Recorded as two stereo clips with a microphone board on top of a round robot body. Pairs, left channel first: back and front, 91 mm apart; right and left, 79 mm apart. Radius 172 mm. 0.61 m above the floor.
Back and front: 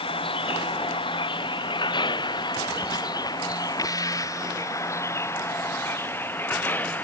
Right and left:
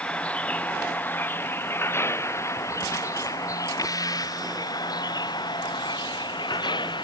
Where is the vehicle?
165° right; by 7.0 s 110° right.